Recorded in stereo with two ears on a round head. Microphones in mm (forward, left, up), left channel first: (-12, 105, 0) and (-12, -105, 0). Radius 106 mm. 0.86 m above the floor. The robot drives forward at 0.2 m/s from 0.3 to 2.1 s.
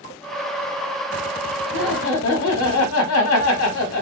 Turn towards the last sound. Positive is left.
turn(degrees=55)  # may be behind; listen again after turning